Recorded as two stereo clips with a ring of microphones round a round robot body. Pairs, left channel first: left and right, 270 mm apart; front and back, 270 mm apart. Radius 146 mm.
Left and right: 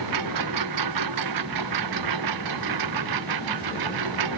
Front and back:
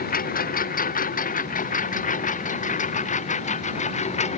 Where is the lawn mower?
60° right; by 4.4 s 65° right.